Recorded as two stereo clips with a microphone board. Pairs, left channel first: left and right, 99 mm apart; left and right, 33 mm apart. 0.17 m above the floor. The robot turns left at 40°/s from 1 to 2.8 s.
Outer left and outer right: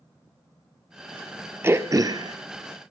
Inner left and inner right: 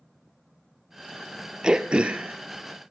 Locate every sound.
1.6 s throat clearing: 25° right (ahead or behind), 0.9 m; by 2.4 s 50° right (ahead or behind), 0.9 m